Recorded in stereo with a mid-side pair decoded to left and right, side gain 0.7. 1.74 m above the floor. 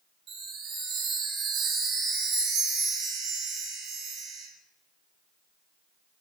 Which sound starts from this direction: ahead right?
A chime, at 0.3 s.